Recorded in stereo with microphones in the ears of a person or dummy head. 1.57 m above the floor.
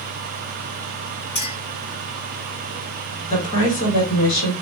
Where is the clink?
30° left (ahead or behind), 1.7 m.